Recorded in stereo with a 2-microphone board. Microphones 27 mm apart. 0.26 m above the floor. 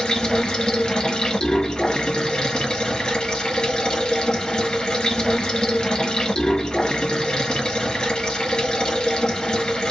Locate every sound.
0.0 s running water: 30° left (ahead or behind), 1.3 m